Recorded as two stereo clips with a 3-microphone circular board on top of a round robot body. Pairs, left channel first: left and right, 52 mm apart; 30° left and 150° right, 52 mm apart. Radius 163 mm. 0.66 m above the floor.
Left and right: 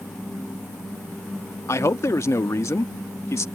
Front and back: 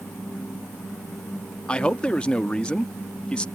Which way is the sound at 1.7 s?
100° left.